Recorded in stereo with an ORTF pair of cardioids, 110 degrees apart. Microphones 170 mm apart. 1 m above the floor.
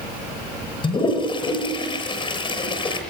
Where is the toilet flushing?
30° left, 6.5 m.